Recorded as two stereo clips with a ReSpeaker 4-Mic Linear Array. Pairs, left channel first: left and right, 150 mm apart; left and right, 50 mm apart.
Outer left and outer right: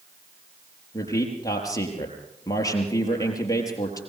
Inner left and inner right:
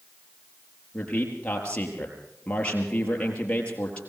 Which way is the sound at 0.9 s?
25° left (ahead or behind).